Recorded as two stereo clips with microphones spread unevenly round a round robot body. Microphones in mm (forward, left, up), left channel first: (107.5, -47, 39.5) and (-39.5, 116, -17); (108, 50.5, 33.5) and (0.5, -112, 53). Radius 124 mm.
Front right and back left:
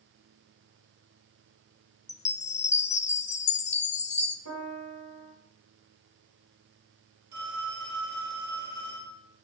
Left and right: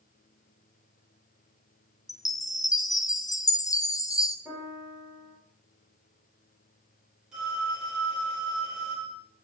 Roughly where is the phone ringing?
Behind left.